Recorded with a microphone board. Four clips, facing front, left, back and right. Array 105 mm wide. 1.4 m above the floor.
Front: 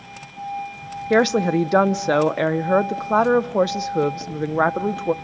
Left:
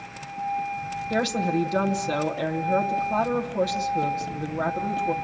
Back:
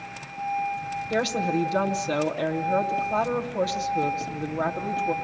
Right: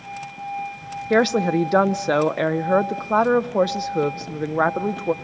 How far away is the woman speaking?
About 0.8 m.